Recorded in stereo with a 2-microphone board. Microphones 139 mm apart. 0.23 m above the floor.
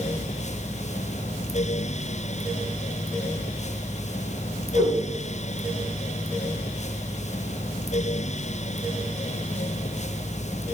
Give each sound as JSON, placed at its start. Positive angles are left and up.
{"t": 4.8, "sound": "a whoosh", "side_deg": -75, "distance_m": 4.5}